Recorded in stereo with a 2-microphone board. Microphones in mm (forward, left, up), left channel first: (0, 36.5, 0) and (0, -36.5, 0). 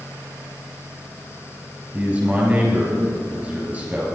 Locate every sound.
1.9 s a man speaking: 25° right (ahead or behind), 5 m